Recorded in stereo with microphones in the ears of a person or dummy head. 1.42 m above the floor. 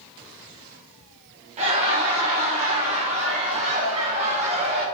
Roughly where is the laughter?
Right.